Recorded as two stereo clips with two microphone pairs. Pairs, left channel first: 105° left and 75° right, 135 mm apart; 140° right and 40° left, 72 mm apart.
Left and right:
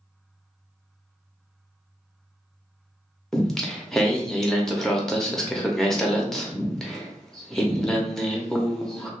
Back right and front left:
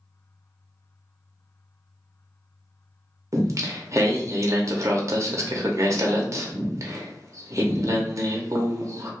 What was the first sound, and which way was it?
Singing, 30° left.